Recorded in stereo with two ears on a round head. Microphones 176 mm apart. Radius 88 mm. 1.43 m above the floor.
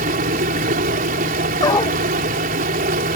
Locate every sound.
0.0 s running water: 45° right (ahead or behind)
1.6 s a dog barking: 20° left (ahead or behind)